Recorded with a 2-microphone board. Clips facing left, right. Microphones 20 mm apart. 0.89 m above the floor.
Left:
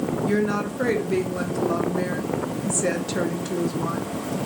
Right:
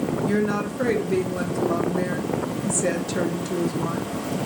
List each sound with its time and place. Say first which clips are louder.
0.2 s a woman speaking: left 1 dB; 10° left (ahead or behind), 0.9 m